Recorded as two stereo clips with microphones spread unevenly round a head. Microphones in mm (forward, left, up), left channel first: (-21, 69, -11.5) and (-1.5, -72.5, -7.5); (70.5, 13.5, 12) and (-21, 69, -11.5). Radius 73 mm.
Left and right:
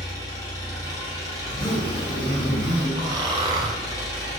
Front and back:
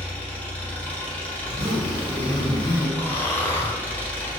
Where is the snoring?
55° right, 0.5 m.